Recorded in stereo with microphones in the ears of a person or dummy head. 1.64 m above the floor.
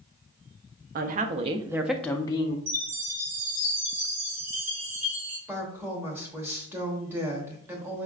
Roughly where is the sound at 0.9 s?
Right.